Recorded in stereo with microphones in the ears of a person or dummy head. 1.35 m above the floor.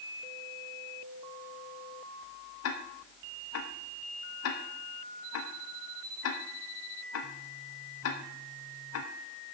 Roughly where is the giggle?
I don't hear a giggle.